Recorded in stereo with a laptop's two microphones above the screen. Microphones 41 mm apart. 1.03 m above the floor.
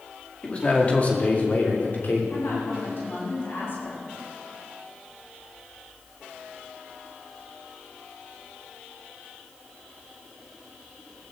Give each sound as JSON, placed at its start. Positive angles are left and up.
{"t": 0.4, "sound": "a man speaking", "side_deg": 30, "distance_m": 2.0}
{"t": 2.3, "sound": "a woman speaking", "side_deg": 65, "distance_m": 7.5}